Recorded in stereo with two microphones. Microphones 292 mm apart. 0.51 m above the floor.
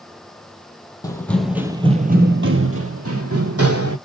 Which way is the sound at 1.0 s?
10° left (ahead or behind).